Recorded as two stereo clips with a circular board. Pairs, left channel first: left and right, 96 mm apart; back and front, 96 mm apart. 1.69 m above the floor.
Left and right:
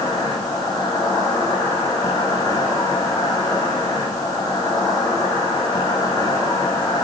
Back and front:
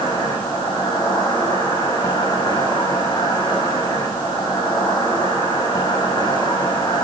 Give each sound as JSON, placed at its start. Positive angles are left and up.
{"t": 0.0, "sound": "an insect", "azimuth_deg": 135, "distance_m": 9.5}